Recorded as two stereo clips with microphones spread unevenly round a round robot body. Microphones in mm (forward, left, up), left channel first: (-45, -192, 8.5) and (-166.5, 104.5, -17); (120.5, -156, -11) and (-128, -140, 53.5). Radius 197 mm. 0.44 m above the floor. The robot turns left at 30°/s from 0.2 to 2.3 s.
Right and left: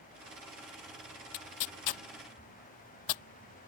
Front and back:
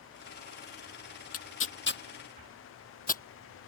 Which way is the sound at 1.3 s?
35° right.